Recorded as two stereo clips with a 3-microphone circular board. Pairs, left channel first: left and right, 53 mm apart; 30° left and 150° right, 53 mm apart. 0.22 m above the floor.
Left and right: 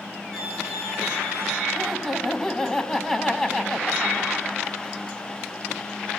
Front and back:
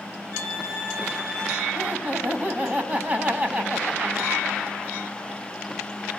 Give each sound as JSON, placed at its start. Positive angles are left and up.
{"t": 0.3, "sound": "a violin", "azimuth_deg": 170, "distance_m": 7.5}
{"t": 1.8, "sound": "laughter", "azimuth_deg": 165, "distance_m": 1.2}